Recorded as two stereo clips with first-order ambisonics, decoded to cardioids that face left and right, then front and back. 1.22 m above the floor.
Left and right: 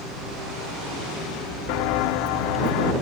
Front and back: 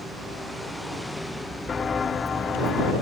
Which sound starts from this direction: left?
Footsteps, at 1.7 s.